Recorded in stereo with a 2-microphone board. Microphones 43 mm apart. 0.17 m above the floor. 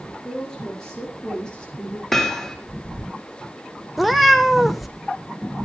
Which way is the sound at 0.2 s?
10° left (ahead or behind).